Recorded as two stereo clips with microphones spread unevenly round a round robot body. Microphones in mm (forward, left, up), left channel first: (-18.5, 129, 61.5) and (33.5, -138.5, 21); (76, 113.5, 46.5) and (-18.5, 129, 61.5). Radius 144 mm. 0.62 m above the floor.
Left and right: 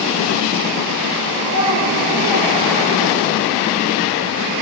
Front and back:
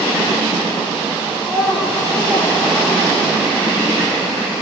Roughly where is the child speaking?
Right.